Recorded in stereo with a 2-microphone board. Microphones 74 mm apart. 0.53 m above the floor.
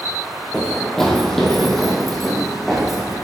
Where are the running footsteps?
10° left (ahead or behind), 0.9 m; by 3.1 s centre (ahead or behind), 2.5 m.